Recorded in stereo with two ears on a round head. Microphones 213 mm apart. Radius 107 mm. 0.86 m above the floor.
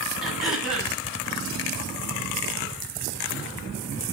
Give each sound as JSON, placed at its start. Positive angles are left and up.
{"t": 0.2, "sound": "throat clearing", "side_deg": 0, "distance_m": 6.5}